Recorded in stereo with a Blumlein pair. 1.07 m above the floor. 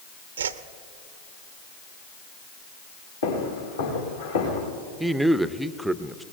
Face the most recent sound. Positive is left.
turn(degrees=-5)